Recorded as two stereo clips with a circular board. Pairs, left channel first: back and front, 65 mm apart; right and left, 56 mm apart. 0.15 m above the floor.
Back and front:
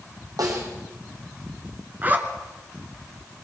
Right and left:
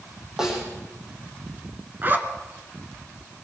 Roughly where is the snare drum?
Ahead.